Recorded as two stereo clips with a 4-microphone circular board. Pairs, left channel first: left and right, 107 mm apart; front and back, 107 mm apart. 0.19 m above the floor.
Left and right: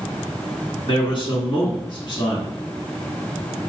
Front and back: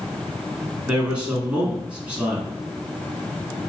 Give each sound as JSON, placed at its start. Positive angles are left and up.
{"t": 0.9, "sound": "a man speaking", "azimuth_deg": 105, "distance_m": 1.8}